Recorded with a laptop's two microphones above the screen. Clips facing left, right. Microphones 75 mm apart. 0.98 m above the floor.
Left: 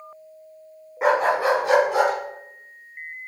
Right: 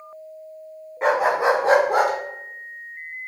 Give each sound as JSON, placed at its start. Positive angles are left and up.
{"t": 1.0, "sound": "a dog barking", "side_deg": 5, "distance_m": 0.7}